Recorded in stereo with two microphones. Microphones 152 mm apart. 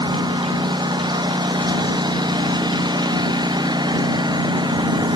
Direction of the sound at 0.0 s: 25° right (ahead or behind).